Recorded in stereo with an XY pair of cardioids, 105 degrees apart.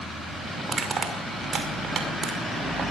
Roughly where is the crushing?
Ahead right.